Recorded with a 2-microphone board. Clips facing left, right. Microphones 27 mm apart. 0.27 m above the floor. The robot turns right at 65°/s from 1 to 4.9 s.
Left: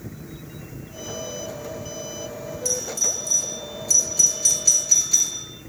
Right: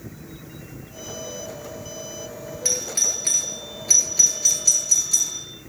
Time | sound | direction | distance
2.6 | a doorbell | 45° right (ahead or behind) | 7.5 m